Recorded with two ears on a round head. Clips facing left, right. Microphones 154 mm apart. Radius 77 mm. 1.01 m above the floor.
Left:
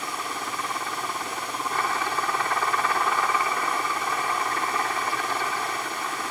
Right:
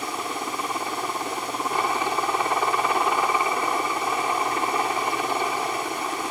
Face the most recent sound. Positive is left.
turn(degrees=-15)  # may be behind; listen again after turning